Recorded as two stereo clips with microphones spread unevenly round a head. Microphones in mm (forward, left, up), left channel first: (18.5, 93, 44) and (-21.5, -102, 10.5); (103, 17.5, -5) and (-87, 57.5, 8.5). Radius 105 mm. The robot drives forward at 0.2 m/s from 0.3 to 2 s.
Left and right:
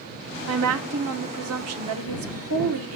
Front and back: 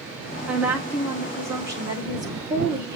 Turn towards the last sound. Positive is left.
turn(degrees=-120)